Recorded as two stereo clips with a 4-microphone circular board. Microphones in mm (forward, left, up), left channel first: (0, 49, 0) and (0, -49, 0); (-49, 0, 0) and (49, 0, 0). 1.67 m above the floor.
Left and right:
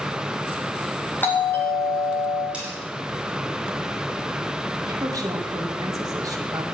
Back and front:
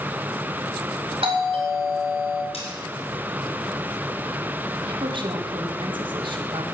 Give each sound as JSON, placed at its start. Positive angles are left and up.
{"t": 1.2, "sound": "a doorbell", "azimuth_deg": 20, "distance_m": 3.5}
{"t": 2.5, "sound": "cutlery clinking", "azimuth_deg": -170, "distance_m": 5.5}
{"t": 4.8, "sound": "a woman speaking", "azimuth_deg": -35, "distance_m": 2.0}